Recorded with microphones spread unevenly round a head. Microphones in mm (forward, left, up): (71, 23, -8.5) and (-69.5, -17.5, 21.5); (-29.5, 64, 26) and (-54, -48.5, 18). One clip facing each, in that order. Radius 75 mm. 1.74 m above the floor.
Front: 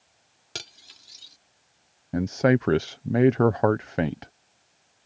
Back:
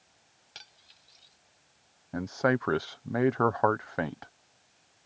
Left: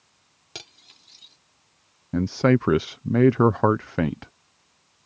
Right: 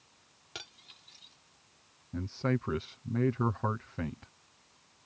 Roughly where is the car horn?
No car horn in this recording.